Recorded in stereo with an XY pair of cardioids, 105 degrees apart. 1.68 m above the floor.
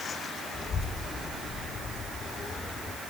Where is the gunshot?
I don't hear a gunshot.